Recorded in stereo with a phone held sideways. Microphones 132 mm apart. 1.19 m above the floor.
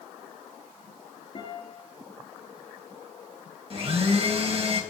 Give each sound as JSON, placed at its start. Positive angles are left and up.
{"t": 1.4, "sound": "a guitar", "side_deg": 40, "distance_m": 3.5}
{"t": 3.7, "sound": "a blender", "side_deg": -45, "distance_m": 1.7}